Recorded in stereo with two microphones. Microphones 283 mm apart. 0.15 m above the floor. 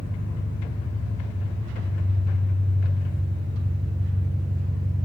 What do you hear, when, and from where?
0.0 s an engine running: 20° right (ahead or behind), 9.5 m